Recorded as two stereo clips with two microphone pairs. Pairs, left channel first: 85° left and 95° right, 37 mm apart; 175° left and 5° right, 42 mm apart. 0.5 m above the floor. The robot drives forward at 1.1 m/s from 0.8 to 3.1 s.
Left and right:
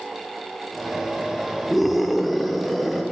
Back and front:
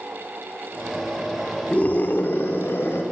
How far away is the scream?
About 0.8 m.